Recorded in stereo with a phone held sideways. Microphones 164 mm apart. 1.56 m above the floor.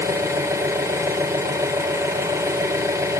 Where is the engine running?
20° right (ahead or behind), 2.5 m.